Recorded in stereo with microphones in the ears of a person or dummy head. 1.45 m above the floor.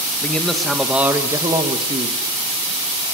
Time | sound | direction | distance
0.2 | a man speaking | 20° left (ahead or behind) | 2.5 m